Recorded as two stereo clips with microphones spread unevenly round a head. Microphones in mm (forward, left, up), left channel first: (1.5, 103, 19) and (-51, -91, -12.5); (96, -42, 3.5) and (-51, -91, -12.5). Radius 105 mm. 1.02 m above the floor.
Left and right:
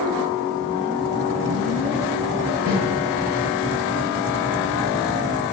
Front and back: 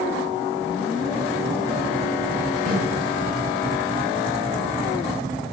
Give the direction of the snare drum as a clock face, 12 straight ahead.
4 o'clock.